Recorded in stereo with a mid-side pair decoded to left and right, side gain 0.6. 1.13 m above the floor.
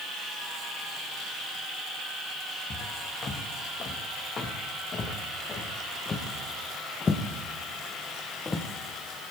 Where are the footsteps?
45° left, 6 m; by 8.7 s 25° left, 3.5 m.